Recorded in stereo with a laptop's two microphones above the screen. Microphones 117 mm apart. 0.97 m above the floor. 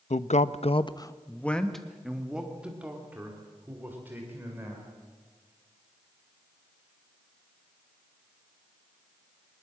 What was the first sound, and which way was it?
A man speaking, 75° left (ahead or behind).